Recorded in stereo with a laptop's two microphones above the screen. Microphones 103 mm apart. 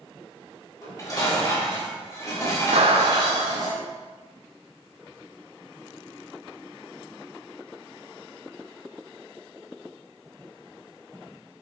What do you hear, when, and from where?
0.8 s dishes clattering: 35° left (ahead or behind), 3 m
2.7 s a clap: 75° right (ahead or behind), 0.7 m